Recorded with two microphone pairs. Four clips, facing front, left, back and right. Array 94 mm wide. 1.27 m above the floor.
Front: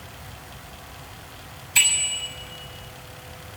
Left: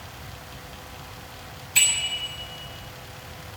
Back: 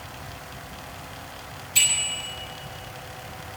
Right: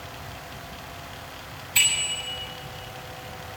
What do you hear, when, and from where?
1.8 s a bicycle bell: 10° right, 6 m